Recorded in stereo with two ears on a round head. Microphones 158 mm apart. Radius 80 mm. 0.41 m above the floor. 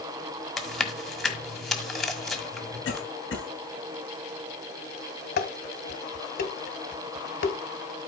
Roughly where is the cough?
Left.